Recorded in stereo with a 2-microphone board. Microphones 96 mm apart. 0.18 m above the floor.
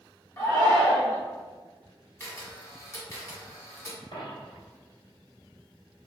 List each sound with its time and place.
0.4 s a shout: 25° left (ahead or behind), 1.1 m
2.2 s a camera shutter: 25° left (ahead or behind), 1.2 m
4.1 s a dropped coin: 55° left (ahead or behind), 1.6 m